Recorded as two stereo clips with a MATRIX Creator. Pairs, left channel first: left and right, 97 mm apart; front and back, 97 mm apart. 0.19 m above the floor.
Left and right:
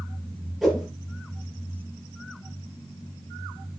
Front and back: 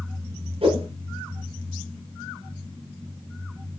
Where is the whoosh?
Straight behind, 4.5 m.